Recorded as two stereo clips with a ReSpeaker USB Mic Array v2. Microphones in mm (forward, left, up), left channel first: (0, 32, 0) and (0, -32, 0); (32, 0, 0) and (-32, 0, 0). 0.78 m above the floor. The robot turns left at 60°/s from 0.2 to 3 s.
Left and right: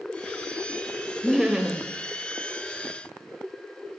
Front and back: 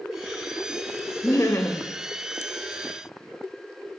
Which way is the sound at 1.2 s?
5° left.